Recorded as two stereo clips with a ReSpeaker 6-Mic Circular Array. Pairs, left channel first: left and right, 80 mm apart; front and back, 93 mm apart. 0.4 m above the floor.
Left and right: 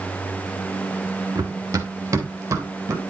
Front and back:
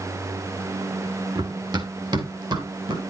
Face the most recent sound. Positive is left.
turn(degrees=-145)